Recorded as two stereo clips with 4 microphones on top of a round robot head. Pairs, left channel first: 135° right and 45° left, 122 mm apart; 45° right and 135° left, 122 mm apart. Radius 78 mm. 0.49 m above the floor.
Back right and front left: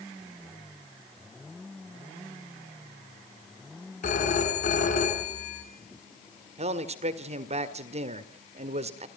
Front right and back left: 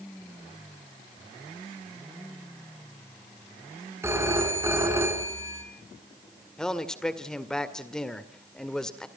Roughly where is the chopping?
No chopping in this recording.